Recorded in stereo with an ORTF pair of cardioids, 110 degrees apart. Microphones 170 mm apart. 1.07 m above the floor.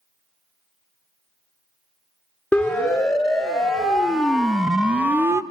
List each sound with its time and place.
2.5 s a siren: 5° left, 2.5 m; by 5.4 s 20° right, 0.5 m